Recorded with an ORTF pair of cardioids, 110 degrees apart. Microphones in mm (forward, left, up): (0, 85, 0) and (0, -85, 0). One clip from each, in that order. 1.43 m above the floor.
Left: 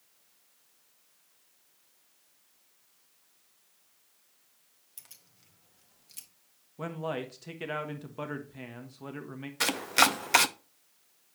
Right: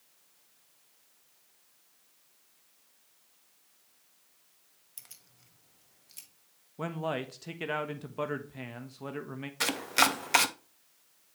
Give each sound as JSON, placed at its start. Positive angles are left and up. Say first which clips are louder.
{"t": 5.0, "sound": "keys jangling", "louder": "right 1 dB", "azimuth_deg": -10, "distance_m": 1.5}
{"t": 6.8, "sound": "a man speaking", "louder": "right 1 dB", "azimuth_deg": -10, "distance_m": 1.3}
{"t": 9.6, "sound": "chopping", "louder": "left 2 dB", "azimuth_deg": 10, "distance_m": 0.5}